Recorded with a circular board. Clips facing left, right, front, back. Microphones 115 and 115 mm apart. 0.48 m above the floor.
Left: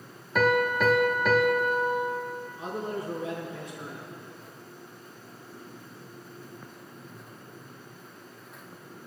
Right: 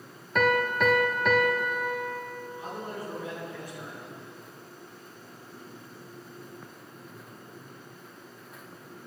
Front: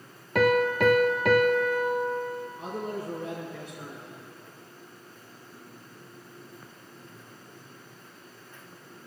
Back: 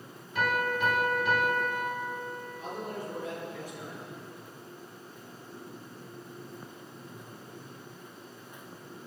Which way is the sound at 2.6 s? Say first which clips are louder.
Left 5 dB, front 1 dB; 25° left.